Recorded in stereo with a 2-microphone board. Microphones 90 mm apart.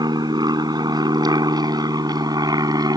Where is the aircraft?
50° right (ahead or behind); by 3.0 s 45° right (ahead or behind).